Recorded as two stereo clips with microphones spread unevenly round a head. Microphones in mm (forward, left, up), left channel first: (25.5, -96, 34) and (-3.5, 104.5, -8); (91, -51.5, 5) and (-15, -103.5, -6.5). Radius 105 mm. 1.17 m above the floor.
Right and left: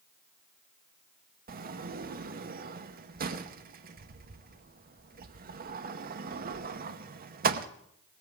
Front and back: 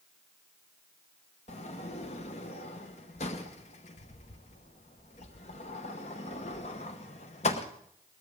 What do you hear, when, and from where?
1.5 s a sliding door: 70° left, 1.0 m